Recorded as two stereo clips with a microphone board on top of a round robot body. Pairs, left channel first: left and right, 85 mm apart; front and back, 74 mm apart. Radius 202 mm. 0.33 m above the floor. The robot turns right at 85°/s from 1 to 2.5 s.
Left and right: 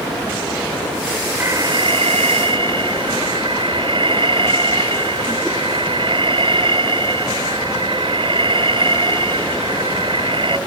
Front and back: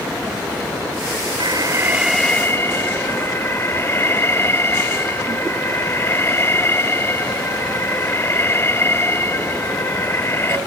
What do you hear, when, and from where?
1.4 s an alarm: 155° right; by 10.6 s 60° right